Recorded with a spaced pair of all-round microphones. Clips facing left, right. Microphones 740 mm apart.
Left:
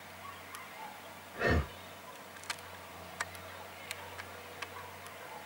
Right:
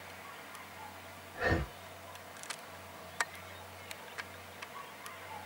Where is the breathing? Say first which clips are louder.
Left 2 dB; 55° left (ahead or behind), 1.0 m.